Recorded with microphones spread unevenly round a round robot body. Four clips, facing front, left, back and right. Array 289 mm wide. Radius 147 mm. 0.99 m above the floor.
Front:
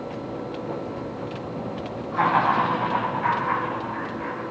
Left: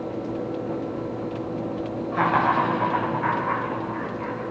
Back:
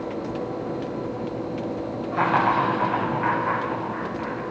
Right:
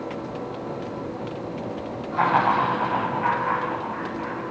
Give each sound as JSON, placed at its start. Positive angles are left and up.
{"t": 2.1, "sound": "laughter", "azimuth_deg": 130, "distance_m": 6.0}